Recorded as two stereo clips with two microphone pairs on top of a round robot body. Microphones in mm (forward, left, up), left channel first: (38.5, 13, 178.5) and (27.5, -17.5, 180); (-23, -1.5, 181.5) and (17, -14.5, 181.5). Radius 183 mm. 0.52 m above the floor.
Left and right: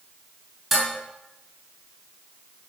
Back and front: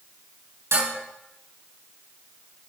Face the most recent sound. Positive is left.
turn(degrees=-25)